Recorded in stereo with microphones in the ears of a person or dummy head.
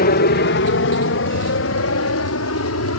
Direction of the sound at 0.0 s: 45° left (ahead or behind).